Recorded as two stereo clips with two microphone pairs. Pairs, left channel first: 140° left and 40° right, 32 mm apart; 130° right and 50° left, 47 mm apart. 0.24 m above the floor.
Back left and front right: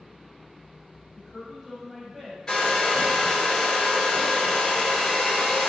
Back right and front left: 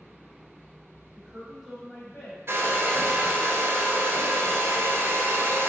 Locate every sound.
1.1 s a woman speaking: 70° left, 1.1 m; by 2.4 s 115° right, 1.3 m
2.5 s a hair dryer: 75° left, 0.9 m